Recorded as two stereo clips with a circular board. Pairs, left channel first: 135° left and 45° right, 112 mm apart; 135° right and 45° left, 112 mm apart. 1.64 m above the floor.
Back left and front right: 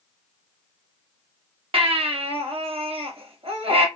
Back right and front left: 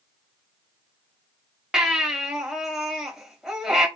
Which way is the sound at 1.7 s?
40° right.